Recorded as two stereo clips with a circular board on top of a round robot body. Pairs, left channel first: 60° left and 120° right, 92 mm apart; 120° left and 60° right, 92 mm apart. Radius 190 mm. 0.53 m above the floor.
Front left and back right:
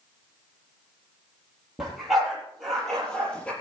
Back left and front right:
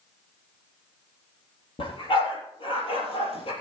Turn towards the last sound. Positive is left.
turn(degrees=140)